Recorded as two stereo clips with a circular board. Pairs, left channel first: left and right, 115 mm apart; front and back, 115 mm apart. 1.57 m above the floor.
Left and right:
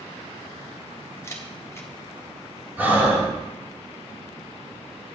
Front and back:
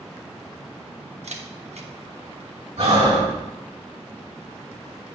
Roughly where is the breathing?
Behind.